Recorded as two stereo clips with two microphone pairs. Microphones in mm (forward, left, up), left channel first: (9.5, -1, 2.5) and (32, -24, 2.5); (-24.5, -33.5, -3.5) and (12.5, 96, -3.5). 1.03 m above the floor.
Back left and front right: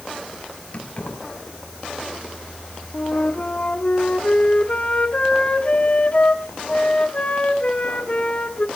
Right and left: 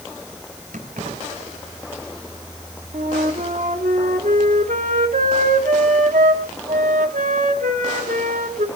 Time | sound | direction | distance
0.7 | keys jangling | 80° left | 5.5 m
2.9 | a flute | 85° left | 1.9 m